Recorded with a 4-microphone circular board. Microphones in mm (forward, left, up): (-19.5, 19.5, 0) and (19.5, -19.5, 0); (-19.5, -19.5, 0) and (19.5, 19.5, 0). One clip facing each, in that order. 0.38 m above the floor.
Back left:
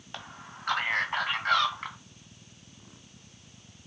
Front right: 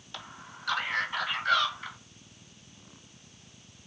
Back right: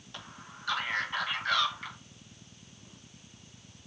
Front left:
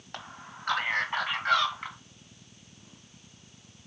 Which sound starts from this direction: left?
A man speaking, at 0.1 s.